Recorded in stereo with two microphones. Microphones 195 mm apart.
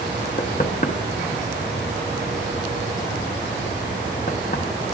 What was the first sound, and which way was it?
Knocking, 40° left (ahead or behind).